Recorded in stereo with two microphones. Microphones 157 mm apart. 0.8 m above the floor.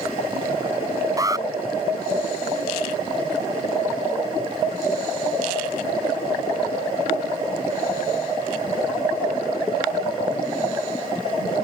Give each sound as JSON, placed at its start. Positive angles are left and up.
{"t": 1.2, "sound": "an alarm", "side_deg": -20}